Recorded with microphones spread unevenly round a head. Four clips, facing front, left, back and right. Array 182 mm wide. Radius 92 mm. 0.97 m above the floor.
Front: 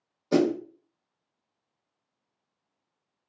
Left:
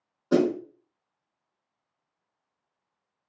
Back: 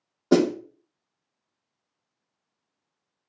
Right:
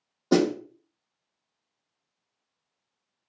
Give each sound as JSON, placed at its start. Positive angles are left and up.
{"t": 0.3, "sound": "a snare drum", "azimuth_deg": -160, "distance_m": 1.1}